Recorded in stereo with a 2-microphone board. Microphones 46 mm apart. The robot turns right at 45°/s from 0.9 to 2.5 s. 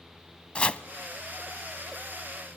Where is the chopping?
25° left (ahead or behind), 0.7 m.